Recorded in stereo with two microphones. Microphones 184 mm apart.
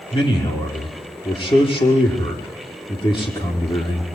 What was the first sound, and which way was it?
A man speaking, 30° left (ahead or behind).